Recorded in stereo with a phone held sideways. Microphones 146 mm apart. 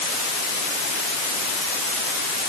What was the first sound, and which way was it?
Only background noise.